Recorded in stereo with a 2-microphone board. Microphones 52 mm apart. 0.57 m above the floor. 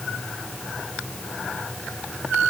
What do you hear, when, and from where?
Only background noise.